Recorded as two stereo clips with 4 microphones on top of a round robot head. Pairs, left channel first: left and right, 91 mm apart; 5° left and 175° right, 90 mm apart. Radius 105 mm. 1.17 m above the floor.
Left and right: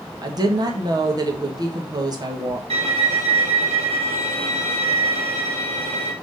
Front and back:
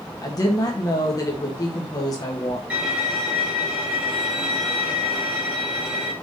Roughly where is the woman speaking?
Ahead right.